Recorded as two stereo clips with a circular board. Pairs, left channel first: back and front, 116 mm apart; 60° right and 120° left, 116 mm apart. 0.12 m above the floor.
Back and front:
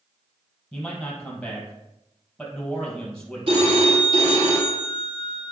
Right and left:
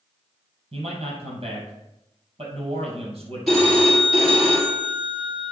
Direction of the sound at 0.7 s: 95° left.